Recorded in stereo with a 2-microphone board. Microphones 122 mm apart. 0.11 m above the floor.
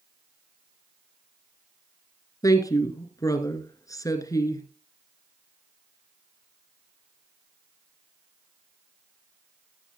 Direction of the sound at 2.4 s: 30° left (ahead or behind).